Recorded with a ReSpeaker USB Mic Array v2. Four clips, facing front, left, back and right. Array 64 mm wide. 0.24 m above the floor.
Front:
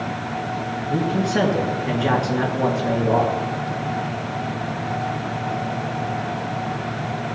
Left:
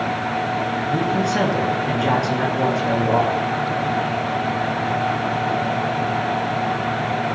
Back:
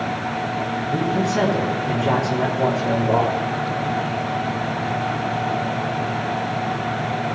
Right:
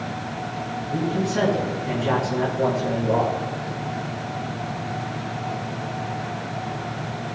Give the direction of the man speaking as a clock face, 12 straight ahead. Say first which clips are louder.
Left 2 dB, front 1 dB; 11 o'clock.